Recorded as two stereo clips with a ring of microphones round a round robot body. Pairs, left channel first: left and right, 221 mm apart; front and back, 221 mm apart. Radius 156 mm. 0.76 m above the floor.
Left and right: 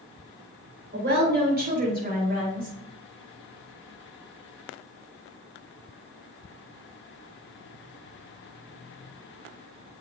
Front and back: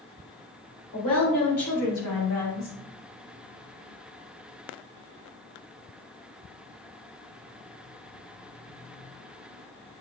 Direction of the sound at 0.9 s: 50° right.